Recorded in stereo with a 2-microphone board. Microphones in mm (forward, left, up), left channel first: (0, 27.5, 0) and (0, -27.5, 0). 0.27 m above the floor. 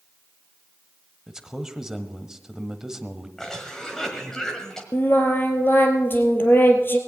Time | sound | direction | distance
1.3 | a man speaking | 10° right (ahead or behind) | 1.1 m
3.4 | a cough | 10° left (ahead or behind) | 1.6 m
4.9 | singing | 40° left (ahead or behind) | 1.9 m